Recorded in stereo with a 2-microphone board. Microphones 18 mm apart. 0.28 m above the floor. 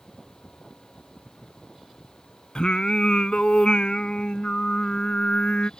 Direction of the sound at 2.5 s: 70° left (ahead or behind).